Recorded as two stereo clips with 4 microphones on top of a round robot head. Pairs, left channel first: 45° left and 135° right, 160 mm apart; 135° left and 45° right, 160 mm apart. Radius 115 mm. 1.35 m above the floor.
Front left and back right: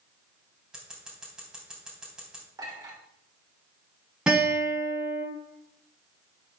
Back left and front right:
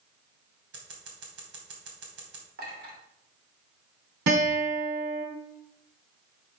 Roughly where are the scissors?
Ahead right.